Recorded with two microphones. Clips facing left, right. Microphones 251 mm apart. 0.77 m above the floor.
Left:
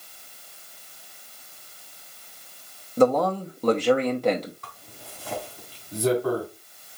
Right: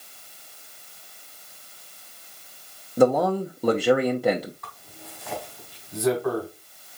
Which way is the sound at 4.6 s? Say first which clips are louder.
Right 1 dB; 35° left (ahead or behind).